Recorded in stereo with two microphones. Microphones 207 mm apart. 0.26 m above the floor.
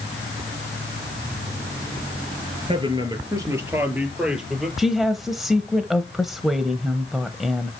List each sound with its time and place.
2.7 s a man speaking: 25° right (ahead or behind), 3.5 m; by 4.7 s centre (ahead or behind), 5 m
4.8 s a woman speaking: centre (ahead or behind), 1.0 m